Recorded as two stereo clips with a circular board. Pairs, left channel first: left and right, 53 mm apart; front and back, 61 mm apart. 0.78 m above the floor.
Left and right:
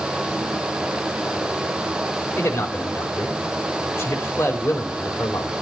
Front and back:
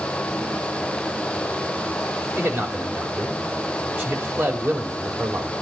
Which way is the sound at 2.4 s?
130° left.